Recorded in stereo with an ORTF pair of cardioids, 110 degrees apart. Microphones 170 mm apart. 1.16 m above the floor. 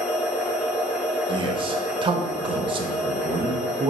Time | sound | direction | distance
0.0 | a machine running | 5° right | 0.9 m
1.3 | a man speaking | 30° right | 0.7 m